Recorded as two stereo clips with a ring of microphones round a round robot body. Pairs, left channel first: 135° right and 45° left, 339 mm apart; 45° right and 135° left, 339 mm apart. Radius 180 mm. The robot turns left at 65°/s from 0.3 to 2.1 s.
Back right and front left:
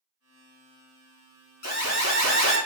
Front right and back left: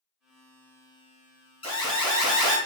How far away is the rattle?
No rattle in this recording.